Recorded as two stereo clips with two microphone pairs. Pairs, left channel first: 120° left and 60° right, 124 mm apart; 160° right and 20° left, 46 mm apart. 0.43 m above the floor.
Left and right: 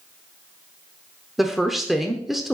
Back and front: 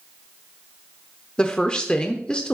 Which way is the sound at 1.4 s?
145° right.